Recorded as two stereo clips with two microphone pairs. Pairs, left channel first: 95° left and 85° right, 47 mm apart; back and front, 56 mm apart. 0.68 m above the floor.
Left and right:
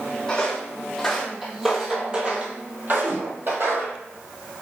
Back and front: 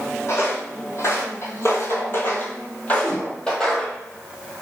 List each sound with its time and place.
0.3 s footsteps: 165° left, 1.4 m; by 4.0 s 95° right, 1.3 m
3.0 s a whoosh: 80° right, 1.7 m